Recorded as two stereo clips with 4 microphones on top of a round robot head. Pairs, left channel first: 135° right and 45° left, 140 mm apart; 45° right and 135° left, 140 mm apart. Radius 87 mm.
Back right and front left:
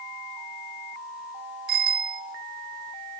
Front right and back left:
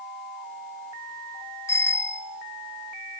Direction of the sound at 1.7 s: 30° left.